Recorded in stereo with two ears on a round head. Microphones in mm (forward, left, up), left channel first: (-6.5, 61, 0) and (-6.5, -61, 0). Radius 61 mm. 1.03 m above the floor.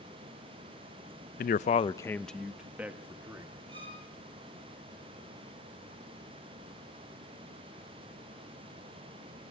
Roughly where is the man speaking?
Left.